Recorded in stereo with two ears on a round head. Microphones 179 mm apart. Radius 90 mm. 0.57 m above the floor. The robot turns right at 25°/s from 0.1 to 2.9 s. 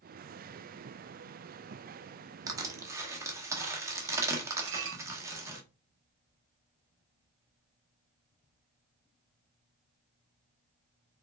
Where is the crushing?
20° right (ahead or behind), 0.8 m; by 5.6 s 15° right (ahead or behind), 0.8 m.